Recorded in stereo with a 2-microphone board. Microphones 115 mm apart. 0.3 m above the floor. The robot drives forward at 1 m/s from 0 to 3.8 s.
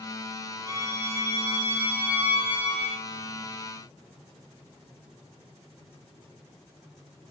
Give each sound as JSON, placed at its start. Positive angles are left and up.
{"t": 0.7, "sound": "a violin", "side_deg": -30, "distance_m": 3.5}